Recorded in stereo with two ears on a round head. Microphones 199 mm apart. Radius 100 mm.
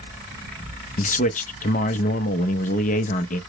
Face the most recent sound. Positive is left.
turn(degrees=35)  # may be behind; listen again after turning